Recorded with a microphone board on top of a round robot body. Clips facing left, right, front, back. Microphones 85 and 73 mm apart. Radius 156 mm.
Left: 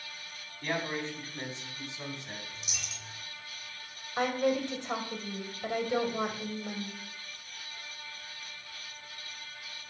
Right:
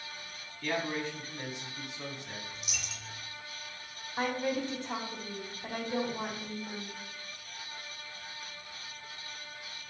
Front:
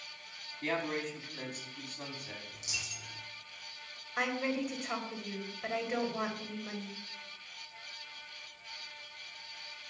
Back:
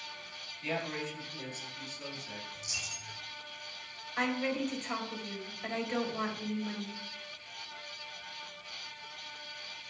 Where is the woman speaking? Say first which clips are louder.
Left 3 dB, back 1 dB; 80° left, 3.5 m.